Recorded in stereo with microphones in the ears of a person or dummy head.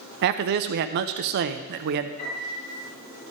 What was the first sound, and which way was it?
A man speaking, 50° right (ahead or behind).